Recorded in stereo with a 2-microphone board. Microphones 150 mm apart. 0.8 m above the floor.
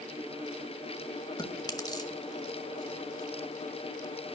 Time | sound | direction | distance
1.4 | chewing | 25° left (ahead or behind) | 1.2 m